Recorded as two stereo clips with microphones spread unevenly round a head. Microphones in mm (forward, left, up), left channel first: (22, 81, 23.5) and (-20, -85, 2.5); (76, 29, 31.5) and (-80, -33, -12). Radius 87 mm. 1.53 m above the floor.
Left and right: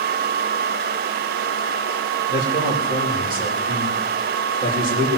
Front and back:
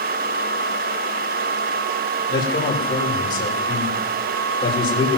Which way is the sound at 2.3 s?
45° right.